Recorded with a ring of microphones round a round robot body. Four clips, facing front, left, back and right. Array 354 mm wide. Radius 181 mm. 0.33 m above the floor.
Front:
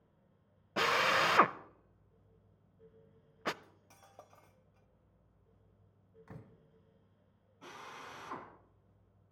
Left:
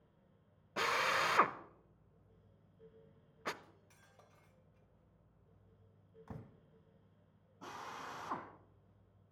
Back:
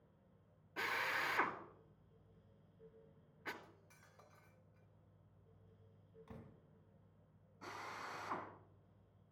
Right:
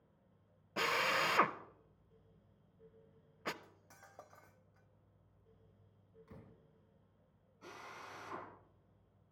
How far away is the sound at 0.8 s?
About 0.7 m.